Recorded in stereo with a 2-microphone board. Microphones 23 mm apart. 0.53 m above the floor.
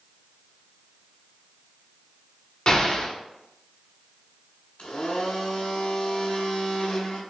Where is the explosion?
35° left (ahead or behind), 0.9 m.